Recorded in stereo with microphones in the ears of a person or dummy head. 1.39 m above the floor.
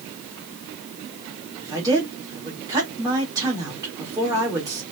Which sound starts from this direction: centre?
A woman speaking, at 1.6 s.